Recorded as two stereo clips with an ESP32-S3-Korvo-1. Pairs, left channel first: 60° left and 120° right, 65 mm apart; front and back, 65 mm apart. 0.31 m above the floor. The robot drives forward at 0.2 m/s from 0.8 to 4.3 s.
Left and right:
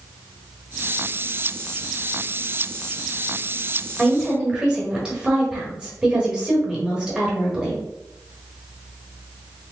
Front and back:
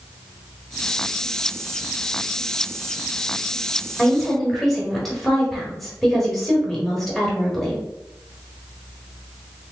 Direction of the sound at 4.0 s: 70° right.